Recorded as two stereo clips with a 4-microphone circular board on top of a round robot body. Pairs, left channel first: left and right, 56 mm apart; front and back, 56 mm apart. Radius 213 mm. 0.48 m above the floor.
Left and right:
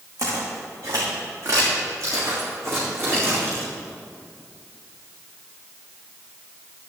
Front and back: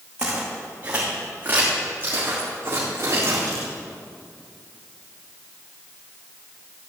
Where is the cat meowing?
I don't hear a cat meowing.